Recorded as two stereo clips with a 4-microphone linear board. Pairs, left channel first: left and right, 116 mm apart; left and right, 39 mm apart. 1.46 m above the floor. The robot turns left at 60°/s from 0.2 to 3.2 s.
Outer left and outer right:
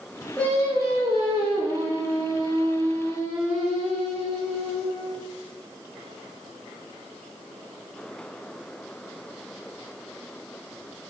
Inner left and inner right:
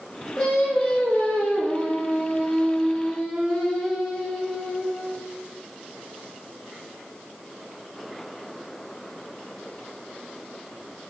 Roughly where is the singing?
Behind.